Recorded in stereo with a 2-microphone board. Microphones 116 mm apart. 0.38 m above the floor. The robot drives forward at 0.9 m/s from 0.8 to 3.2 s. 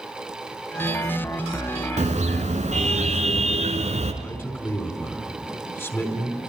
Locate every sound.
2.0 s a car horn: 75° right (ahead or behind), 3 m
4.2 s a man speaking: 20° left (ahead or behind), 4 m